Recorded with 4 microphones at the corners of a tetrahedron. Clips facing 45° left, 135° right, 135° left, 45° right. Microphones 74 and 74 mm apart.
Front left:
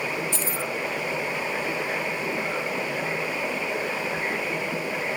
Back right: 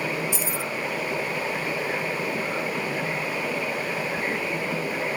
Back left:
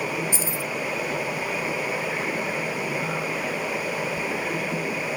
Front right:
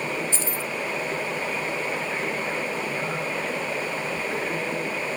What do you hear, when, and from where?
0.3 s keys jangling: straight behind, 0.7 m